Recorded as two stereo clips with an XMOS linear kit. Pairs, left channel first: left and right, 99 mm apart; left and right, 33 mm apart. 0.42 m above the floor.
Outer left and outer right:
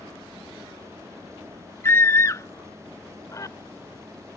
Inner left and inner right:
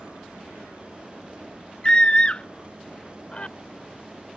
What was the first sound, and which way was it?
A scream, 30° left (ahead or behind).